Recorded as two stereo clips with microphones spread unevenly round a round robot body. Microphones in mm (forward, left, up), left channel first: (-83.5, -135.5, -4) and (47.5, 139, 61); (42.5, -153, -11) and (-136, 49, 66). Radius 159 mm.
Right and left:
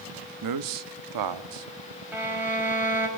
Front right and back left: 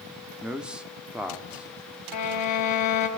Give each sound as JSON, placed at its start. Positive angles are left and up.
{"t": 0.4, "sound": "a man speaking", "azimuth_deg": 35, "distance_m": 1.0}
{"t": 2.1, "sound": "a violin", "azimuth_deg": -20, "distance_m": 3.5}